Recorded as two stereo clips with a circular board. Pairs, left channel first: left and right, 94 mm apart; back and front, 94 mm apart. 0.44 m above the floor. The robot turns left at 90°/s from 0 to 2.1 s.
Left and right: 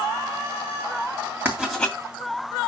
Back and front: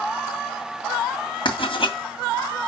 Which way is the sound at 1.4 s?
160° right.